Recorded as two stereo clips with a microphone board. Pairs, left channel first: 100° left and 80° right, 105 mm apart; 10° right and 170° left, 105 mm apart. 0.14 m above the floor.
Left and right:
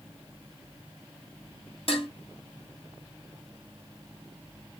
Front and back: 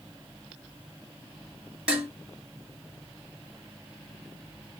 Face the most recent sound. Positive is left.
turn(degrees=90)